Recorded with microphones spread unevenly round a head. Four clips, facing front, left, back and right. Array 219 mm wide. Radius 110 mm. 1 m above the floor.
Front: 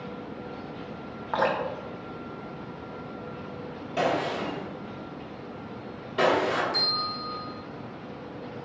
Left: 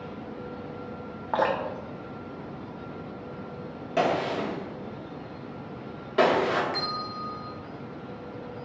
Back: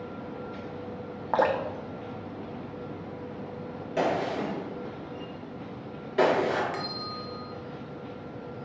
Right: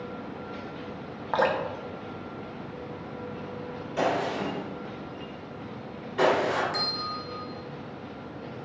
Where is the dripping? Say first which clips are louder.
Even, back 1 dB; 175° left, 0.7 m.